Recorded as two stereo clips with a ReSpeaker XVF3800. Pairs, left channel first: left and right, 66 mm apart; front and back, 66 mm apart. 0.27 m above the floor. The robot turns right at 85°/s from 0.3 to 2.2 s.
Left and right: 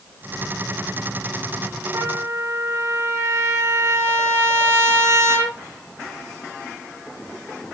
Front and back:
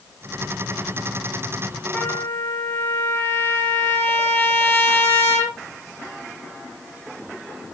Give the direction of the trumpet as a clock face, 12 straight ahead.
2 o'clock.